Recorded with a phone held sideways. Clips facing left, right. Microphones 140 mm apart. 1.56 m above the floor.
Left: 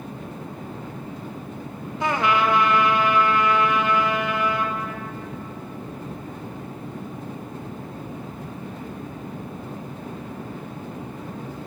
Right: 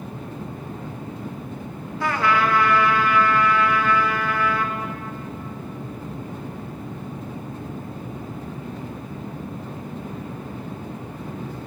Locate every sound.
2.0 s a trumpet: 20° left (ahead or behind), 1.3 m